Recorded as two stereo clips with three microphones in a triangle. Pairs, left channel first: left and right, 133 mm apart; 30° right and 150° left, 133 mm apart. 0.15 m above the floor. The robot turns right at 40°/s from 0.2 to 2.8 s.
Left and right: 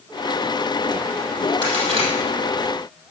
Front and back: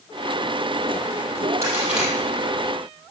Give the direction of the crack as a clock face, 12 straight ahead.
5 o'clock.